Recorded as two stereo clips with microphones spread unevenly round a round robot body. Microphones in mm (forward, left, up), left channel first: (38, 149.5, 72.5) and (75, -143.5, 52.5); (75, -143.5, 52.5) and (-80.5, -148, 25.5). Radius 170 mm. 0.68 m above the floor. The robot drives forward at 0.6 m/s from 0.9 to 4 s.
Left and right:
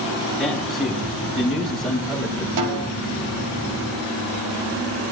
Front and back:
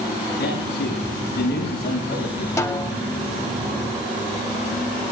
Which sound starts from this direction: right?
A snare drum, at 2.6 s.